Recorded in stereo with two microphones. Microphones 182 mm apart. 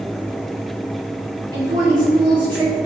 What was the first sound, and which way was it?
A woman speaking, 25° right (ahead or behind).